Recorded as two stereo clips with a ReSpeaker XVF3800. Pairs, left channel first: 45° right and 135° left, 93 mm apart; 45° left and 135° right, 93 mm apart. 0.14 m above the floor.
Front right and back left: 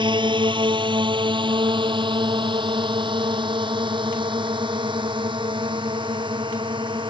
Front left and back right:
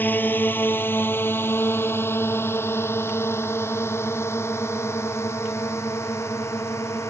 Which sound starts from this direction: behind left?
A drone, at 0.0 s.